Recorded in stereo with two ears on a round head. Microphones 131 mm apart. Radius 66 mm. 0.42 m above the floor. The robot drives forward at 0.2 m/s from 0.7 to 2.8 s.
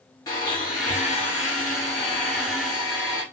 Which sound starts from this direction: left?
A blender, at 0.3 s.